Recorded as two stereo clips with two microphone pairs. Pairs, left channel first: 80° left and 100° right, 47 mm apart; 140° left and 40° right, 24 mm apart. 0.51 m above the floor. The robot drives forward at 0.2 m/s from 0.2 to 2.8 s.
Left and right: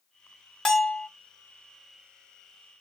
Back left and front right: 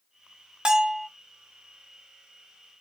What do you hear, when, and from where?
0.7 s a bell: straight ahead, 1.0 m